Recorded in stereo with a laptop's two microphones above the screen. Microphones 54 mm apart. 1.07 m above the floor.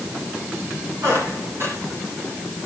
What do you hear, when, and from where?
1.0 s a squeak: 55° right (ahead or behind), 9 m